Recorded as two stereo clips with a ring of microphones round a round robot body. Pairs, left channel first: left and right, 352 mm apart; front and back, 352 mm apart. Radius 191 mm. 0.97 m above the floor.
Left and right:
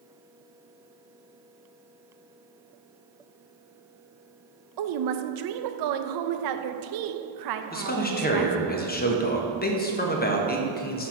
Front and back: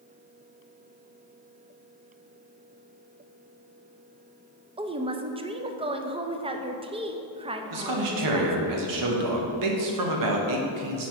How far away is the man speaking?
About 0.9 m.